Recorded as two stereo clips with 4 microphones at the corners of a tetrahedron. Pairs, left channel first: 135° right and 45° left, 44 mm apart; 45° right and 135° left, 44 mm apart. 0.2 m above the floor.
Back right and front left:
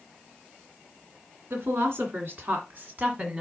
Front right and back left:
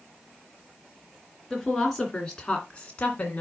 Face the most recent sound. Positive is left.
turn(degrees=5)